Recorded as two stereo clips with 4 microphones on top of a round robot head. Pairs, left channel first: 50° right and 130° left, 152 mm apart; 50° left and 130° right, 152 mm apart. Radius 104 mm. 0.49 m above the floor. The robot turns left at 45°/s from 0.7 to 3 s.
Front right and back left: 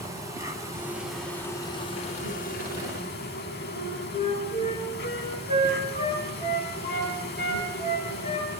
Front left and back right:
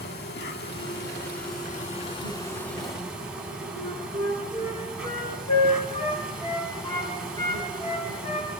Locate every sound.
0.0 s an insect: 60° left, 2.5 m; by 8.6 s 45° right, 2.5 m
3.8 s a flute: 10° right, 5.5 m